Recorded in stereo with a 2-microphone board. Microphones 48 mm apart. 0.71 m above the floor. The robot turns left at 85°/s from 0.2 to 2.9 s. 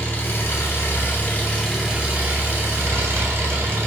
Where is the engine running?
130° left, 1.1 m; by 3.9 s 100° right, 1.1 m.